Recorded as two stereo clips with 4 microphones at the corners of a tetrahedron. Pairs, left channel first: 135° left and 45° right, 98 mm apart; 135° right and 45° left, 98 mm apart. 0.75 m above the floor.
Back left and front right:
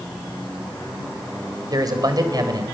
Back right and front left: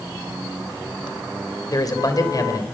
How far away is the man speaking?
About 3.5 m.